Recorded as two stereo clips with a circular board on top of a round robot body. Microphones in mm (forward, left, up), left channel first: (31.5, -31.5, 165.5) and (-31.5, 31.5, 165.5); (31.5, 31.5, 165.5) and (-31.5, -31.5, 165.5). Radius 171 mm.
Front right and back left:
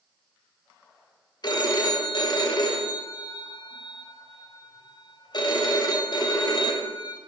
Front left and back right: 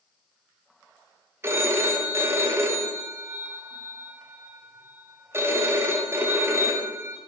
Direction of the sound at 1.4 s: 75° right.